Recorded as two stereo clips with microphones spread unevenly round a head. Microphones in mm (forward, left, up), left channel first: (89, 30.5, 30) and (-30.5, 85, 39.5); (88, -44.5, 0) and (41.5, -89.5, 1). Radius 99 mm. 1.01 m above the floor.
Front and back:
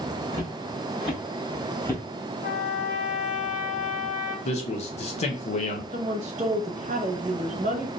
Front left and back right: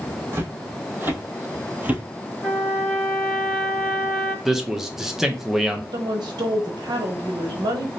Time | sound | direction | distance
0.3 | footsteps | 85° right | 2.0 m
2.4 | a trumpet | 45° right | 1.6 m
4.5 | a man speaking | 55° right | 0.7 m
5.9 | a woman speaking | 155° right | 0.8 m